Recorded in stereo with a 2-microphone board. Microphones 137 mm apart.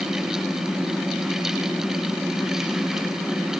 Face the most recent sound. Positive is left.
No sound to turn to.